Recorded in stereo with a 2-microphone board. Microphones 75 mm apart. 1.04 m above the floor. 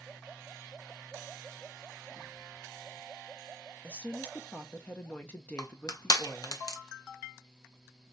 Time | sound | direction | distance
3.8 | a woman speaking | 20° left (ahead or behind) | 0.8 m
5.6 | crushing | 60° left (ahead or behind) | 0.8 m